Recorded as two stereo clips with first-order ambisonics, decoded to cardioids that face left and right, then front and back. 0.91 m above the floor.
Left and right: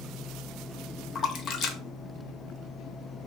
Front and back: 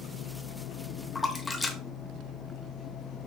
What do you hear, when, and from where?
1.1 s a splash: 70° left, 0.7 m